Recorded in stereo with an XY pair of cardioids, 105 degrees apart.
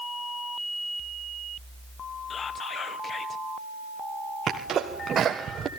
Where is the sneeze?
50° right, 1.4 m.